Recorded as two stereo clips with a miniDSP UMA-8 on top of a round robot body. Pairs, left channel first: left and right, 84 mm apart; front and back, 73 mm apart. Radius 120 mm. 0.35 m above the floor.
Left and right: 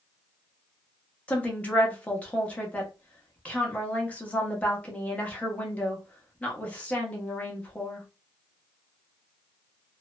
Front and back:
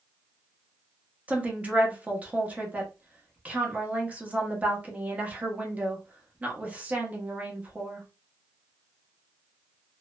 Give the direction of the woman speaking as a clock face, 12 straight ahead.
7 o'clock.